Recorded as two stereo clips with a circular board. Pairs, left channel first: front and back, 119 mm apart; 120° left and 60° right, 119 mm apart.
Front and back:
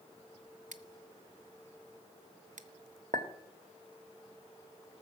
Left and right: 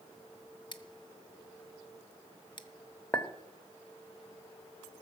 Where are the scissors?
170° left, 0.8 m.